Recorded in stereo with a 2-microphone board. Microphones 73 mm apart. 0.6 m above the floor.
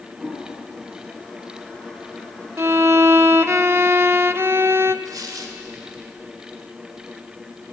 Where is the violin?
40° right (ahead or behind), 0.5 m.